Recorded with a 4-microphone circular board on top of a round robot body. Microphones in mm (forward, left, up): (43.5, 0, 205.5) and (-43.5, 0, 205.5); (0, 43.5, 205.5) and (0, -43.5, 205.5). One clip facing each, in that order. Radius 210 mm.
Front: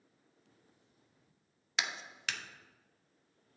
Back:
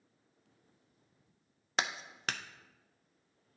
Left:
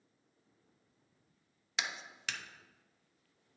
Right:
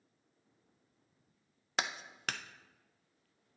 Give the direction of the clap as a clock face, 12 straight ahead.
4 o'clock.